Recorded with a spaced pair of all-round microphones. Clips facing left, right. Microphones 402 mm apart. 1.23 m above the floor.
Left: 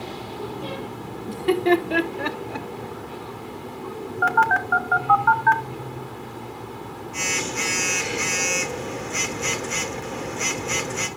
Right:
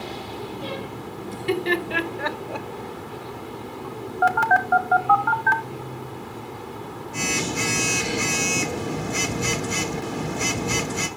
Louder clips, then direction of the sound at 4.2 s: Right 4 dB; 55° right (ahead or behind).